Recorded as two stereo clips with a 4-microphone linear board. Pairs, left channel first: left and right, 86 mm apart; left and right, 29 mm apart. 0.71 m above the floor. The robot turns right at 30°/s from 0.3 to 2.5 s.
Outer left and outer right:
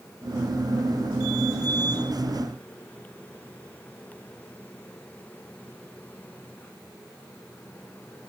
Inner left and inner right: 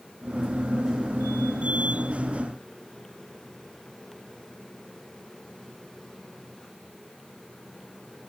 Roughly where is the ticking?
I don't hear ticking.